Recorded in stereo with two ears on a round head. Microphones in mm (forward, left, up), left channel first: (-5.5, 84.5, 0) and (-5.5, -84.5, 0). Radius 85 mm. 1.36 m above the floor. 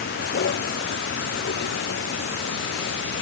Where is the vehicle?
60° left (ahead or behind); by 3.2 s 65° left (ahead or behind).